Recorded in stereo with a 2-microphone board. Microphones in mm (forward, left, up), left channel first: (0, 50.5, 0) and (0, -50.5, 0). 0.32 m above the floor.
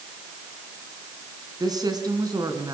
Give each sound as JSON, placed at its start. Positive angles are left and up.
{"t": 1.6, "sound": "a woman speaking", "side_deg": -40, "distance_m": 3.5}